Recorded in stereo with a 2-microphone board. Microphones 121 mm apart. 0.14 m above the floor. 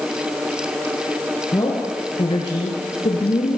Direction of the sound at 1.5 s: 30° left (ahead or behind).